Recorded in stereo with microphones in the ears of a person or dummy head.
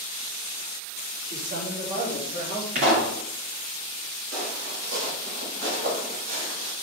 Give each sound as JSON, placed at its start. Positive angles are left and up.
{"t": 1.2, "sound": "a man speaking", "side_deg": -55, "distance_m": 3.5}
{"t": 2.8, "sound": "a pop", "side_deg": -35, "distance_m": 2.0}
{"t": 4.3, "sound": "footsteps", "side_deg": -55, "distance_m": 2.5}